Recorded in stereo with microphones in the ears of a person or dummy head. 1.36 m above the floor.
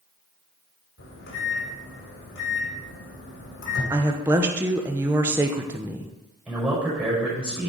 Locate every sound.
1.0 s a microwave: 65° left (ahead or behind), 3 m
3.9 s a woman speaking: 10° right (ahead or behind), 1.1 m
6.5 s a man speaking: 5° right (ahead or behind), 5 m